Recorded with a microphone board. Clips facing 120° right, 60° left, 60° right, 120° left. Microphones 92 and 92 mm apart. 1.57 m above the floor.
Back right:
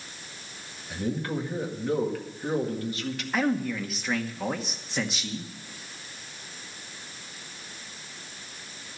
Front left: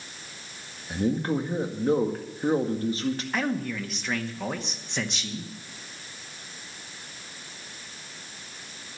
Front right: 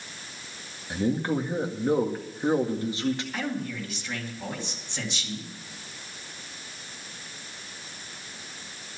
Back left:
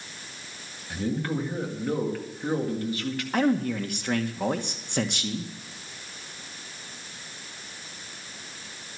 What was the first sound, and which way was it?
A man speaking, 5° left.